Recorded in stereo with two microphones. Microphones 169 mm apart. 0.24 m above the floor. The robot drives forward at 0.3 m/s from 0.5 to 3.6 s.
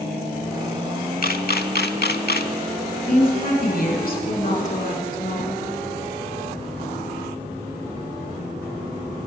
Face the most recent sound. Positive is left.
turn(degrees=60)  # may be behind; listen again after turning